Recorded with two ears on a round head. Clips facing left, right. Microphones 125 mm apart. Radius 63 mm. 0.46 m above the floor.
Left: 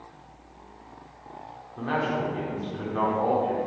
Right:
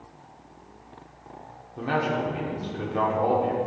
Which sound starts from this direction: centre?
A man speaking, at 1.8 s.